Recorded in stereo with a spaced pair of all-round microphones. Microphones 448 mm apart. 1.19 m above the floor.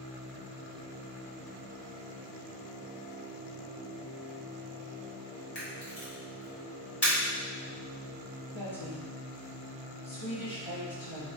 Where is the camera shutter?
60° left (ahead or behind), 1.2 m.